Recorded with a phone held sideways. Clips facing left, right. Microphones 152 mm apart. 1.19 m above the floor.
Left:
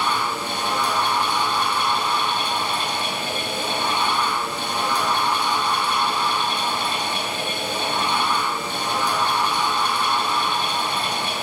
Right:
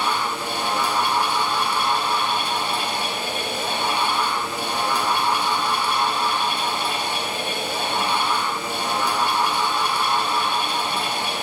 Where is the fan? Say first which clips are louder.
Even; 10° right (ahead or behind), 3 m.